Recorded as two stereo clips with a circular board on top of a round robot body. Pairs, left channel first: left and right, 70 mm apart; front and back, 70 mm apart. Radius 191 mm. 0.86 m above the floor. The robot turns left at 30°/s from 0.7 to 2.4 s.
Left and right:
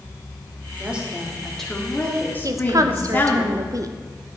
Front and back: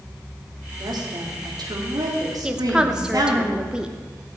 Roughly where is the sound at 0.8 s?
Behind.